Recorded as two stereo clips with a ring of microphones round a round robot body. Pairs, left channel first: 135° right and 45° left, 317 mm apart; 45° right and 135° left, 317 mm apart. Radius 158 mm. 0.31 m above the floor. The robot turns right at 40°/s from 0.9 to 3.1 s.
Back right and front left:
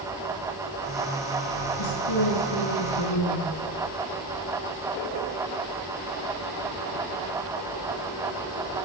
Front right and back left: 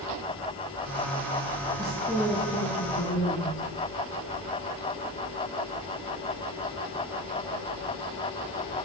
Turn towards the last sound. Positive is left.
turn(degrees=-95)